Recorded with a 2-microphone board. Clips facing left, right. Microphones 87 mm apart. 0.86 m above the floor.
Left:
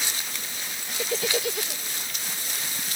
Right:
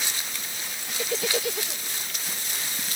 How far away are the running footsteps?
No running footsteps in this recording.